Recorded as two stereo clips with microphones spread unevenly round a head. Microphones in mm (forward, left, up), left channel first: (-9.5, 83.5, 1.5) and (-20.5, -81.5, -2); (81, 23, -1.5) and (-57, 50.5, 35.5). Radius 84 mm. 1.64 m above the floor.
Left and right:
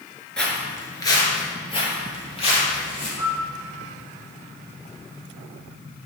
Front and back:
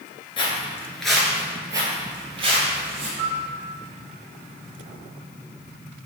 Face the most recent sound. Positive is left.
turn(degrees=150)